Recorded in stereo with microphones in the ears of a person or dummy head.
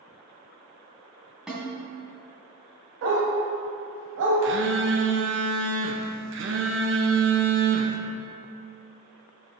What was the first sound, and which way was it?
A snare drum, 5° right (ahead or behind).